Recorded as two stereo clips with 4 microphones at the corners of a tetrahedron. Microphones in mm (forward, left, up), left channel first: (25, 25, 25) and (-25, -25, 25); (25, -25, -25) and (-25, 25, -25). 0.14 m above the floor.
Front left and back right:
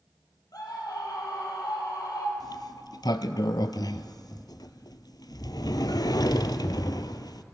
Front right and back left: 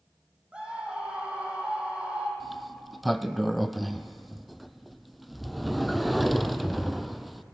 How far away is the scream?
About 5 m.